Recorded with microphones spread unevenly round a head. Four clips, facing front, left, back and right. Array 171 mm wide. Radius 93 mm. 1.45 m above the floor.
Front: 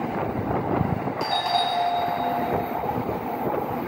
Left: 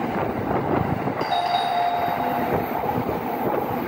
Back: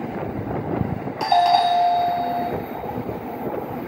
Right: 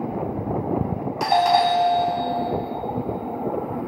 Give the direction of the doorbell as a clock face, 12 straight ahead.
5 o'clock.